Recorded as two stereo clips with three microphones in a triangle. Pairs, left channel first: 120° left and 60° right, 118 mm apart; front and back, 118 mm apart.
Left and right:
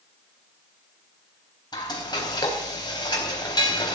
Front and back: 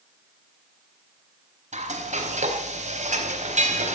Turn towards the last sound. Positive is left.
turn(degrees=175)